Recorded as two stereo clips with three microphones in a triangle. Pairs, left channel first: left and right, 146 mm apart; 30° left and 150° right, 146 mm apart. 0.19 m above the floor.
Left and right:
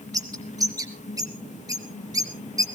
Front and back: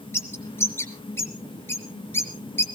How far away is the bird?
About 1.6 m.